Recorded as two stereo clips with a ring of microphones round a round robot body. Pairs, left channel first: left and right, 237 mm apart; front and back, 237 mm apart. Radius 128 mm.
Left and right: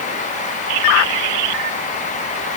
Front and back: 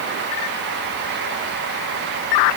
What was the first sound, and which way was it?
Only background noise.